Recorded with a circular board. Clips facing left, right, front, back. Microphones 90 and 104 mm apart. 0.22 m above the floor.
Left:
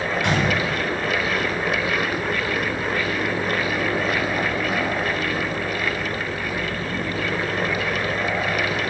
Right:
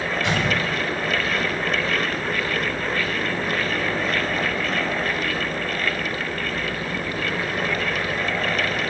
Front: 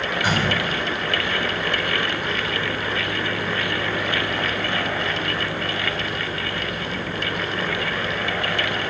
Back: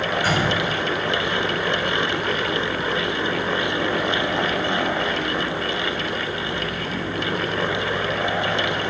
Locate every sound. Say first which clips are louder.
0.2 s a gunshot: left 2 dB, front 1 dB; 70° left, 8 m